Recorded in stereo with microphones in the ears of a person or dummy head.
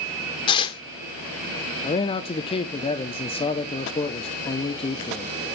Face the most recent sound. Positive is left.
turn(degrees=25)  # may be behind; listen again after turning